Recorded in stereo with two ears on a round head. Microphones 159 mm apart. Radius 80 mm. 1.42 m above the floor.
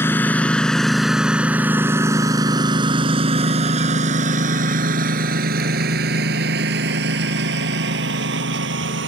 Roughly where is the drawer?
No drawer in this recording.